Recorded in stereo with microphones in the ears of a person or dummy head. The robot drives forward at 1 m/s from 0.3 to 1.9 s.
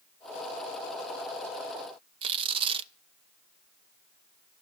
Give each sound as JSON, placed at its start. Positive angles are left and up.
{"t": 2.2, "sound": "tearing paper", "side_deg": -30, "distance_m": 0.5}